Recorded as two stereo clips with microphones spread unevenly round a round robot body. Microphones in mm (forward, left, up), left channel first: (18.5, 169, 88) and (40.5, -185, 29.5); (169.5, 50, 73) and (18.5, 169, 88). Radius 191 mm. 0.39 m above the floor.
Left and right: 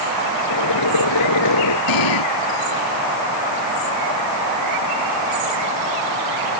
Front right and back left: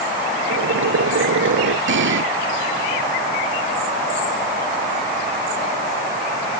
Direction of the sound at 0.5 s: 140° left.